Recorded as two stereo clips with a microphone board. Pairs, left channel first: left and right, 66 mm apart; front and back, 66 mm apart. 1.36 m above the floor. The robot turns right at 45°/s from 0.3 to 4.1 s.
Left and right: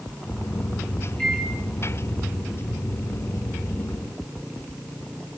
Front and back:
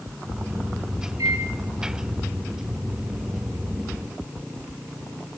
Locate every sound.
1.2 s a microwave: 165° left, 8 m; by 1.5 s 175° left, 8 m